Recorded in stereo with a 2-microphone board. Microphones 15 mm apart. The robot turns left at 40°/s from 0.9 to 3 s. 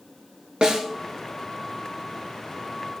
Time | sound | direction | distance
0.6 | a snare drum | 60° right (ahead or behind) | 1.6 m